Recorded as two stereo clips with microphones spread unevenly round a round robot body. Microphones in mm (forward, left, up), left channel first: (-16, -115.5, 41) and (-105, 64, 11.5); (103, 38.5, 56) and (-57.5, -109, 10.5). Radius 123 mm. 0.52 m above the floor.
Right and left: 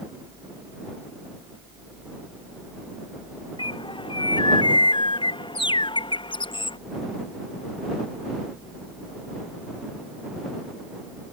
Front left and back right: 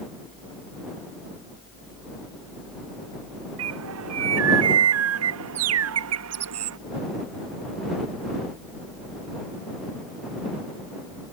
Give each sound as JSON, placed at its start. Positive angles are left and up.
{"t": 3.6, "sound": "a bird", "azimuth_deg": -130}